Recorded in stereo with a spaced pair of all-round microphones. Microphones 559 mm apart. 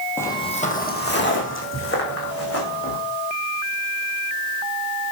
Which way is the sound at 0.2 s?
5° left (ahead or behind).